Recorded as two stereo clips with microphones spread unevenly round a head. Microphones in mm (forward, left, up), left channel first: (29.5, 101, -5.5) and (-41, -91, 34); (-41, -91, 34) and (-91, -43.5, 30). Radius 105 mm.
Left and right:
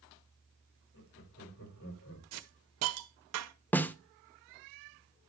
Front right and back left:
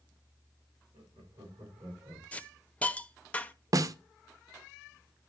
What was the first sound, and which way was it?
Laughter, 80° left.